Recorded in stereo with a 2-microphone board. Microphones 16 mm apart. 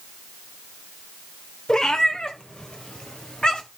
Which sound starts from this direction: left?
A cat meowing, at 1.7 s.